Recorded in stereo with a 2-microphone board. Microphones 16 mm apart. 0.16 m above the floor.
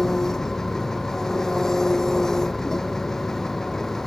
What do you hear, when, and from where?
0.0 s an engine running: 30° left (ahead or behind)